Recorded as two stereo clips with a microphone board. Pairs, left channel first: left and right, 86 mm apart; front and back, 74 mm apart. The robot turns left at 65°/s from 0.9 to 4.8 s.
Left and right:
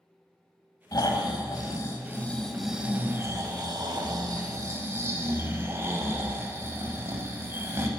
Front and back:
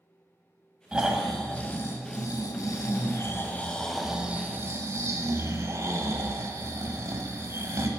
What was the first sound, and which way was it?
Snoring, 110° left.